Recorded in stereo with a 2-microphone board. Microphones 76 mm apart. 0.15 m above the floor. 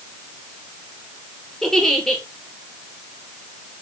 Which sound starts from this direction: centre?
A giggle, at 1.6 s.